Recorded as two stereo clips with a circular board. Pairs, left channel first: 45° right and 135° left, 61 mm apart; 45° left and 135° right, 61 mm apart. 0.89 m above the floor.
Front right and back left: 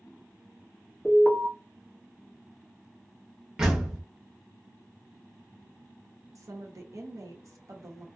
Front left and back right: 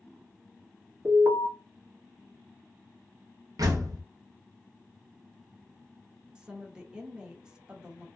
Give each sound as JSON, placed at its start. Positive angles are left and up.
{"t": 1.1, "sound": "an alarm", "azimuth_deg": -145, "distance_m": 1.2}
{"t": 3.6, "sound": "a door slam", "azimuth_deg": -145, "distance_m": 0.7}
{"t": 6.3, "sound": "a woman speaking", "azimuth_deg": 150, "distance_m": 0.9}